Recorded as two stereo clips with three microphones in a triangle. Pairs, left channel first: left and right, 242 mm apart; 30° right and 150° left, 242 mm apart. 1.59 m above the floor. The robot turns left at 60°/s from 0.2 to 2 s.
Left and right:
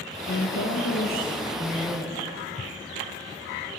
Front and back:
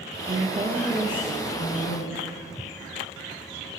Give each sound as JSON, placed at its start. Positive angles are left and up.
{"t": 0.3, "sound": "a woman speaking", "azimuth_deg": 105, "distance_m": 2.0}